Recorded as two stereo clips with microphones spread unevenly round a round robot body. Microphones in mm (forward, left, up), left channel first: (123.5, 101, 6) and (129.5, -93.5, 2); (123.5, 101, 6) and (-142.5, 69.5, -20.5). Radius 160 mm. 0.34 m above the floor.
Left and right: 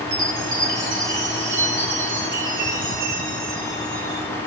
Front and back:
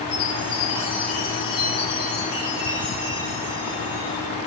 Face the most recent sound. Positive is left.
turn(degrees=-80)